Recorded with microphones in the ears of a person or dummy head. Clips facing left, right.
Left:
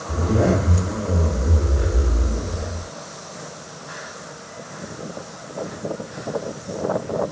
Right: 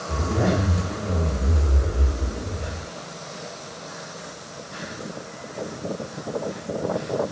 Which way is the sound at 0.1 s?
70° left (ahead or behind).